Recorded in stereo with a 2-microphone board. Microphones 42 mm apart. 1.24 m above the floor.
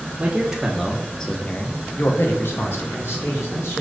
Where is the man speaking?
20° right (ahead or behind), 0.8 m; by 3.8 s 80° left, 1.3 m.